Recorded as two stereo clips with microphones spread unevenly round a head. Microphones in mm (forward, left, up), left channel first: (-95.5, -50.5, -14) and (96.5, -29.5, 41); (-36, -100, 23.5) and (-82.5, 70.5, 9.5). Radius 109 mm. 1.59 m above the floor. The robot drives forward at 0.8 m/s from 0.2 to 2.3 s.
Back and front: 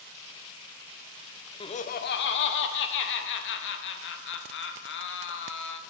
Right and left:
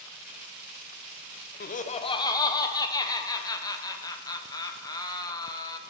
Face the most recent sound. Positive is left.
turn(degrees=-145)